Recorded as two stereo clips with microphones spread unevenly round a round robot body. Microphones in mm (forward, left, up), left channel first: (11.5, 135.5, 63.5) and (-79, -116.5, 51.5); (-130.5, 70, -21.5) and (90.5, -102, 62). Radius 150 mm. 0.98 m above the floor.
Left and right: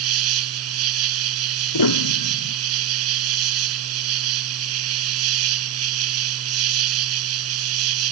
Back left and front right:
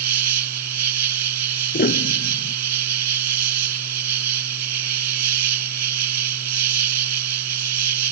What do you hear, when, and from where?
0.0 s an insect: 70° right
1.7 s a piano: 80° left